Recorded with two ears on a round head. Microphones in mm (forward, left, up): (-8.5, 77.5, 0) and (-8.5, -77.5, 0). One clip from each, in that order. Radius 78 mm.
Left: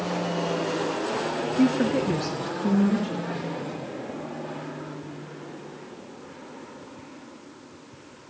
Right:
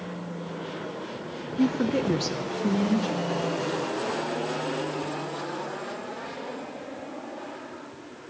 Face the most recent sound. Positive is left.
turn(degrees=-75)  # may be behind; listen again after turning